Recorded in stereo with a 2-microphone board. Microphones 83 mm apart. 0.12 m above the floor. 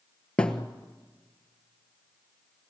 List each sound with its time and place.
0.4 s a thud: 10° left (ahead or behind), 1.3 m